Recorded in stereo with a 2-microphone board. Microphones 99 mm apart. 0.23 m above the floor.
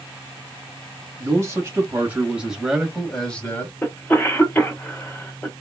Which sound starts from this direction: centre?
A cough, at 3.8 s.